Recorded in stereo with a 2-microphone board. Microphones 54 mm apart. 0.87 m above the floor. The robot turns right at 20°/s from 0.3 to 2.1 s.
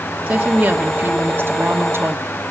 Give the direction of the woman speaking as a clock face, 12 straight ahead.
5 o'clock.